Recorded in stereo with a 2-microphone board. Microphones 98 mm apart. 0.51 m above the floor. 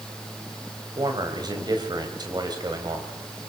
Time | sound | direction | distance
1.0 | a man speaking | 45° right (ahead or behind) | 3.5 m